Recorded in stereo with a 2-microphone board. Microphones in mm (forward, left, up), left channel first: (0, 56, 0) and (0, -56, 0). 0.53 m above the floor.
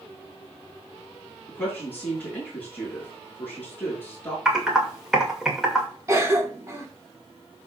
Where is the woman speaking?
15° left (ahead or behind), 6.5 m.